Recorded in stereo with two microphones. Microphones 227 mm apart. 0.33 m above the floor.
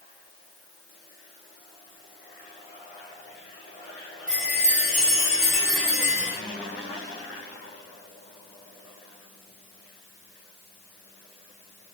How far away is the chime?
About 4 m.